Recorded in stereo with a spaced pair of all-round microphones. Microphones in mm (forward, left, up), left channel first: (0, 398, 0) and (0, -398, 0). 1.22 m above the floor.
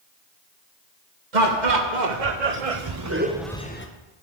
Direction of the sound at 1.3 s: 65° right (ahead or behind).